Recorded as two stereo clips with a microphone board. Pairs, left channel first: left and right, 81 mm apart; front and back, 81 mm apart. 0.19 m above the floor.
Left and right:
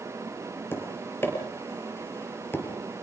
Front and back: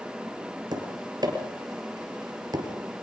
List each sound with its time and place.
0.7 s tapping: 150° left, 4 m